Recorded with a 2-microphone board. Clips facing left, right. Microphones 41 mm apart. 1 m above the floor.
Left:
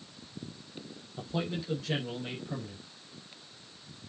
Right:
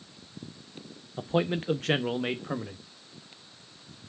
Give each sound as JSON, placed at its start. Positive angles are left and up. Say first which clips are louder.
{"t": 1.2, "sound": "a man speaking", "louder": "right 7 dB", "side_deg": -30, "distance_m": 0.5}